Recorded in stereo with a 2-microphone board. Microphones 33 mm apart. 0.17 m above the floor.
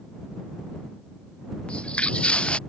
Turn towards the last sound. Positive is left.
turn(degrees=30)  # may be behind; listen again after turning